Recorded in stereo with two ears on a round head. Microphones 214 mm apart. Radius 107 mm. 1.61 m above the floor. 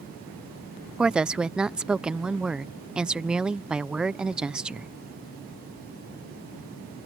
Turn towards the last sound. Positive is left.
turn(degrees=-5)  # may be behind; listen again after turning